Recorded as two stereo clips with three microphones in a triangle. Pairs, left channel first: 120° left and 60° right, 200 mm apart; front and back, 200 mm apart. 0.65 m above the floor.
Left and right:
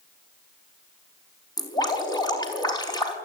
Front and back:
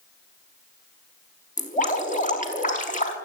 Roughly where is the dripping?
Ahead left.